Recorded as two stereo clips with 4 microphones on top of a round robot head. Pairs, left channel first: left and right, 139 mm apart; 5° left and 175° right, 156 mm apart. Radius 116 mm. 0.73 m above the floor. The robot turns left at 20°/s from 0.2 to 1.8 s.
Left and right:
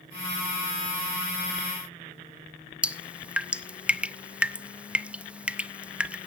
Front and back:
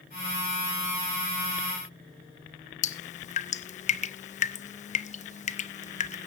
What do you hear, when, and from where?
2.8 s dripping: 10° right, 0.8 m